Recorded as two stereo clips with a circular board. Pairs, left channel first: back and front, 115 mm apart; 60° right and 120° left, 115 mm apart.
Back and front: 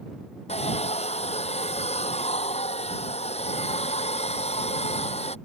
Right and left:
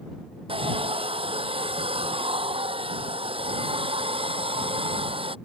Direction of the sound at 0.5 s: 155° left.